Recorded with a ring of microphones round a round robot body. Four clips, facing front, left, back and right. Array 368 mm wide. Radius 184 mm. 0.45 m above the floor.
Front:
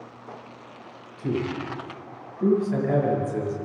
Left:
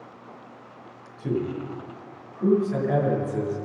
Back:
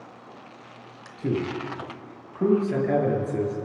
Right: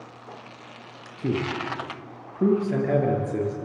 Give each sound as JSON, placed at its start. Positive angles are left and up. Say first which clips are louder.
{"t": 1.2, "sound": "a man speaking", "louder": "right 1 dB, even", "azimuth_deg": -115, "distance_m": 8.5}